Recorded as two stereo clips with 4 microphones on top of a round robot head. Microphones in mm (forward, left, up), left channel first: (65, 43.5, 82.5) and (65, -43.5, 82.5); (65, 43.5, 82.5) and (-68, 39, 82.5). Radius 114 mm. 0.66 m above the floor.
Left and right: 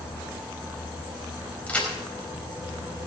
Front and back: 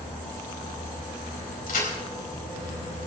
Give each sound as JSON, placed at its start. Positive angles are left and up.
{"t": 1.7, "sound": "a crack", "azimuth_deg": 15, "distance_m": 5.0}